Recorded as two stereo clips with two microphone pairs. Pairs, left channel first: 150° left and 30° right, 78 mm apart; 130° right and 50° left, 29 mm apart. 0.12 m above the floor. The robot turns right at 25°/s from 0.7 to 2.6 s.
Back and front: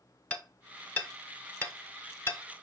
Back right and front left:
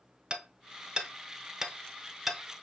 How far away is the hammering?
About 0.7 m.